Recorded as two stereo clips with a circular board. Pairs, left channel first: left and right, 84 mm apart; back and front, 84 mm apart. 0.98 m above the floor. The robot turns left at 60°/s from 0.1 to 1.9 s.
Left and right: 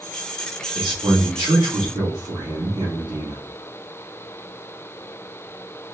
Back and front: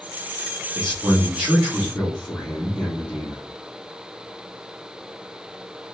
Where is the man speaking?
35° right, 2 m; by 3.4 s 105° right, 2 m.